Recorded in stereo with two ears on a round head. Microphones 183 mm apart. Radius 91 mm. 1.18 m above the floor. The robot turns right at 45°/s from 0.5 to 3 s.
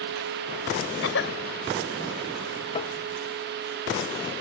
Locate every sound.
1.0 s a cough: 70° left (ahead or behind); by 1.4 s 55° left (ahead or behind)
2.7 s tapping: 25° left (ahead or behind); by 3.0 s 30° left (ahead or behind)